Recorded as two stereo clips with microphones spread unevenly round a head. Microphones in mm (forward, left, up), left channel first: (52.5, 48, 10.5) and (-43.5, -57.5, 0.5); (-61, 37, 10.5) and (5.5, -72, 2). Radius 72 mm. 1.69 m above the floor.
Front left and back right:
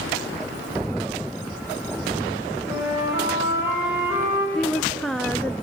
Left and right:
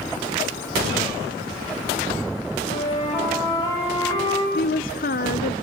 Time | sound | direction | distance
2.6 | a flute | 160° left | 9 m
4.5 | a woman speaking | 135° left | 0.7 m